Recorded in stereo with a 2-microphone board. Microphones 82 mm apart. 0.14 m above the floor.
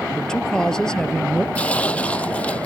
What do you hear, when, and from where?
0.1 s a man speaking: 10° left (ahead or behind)
1.6 s tearing paper: 15° left (ahead or behind)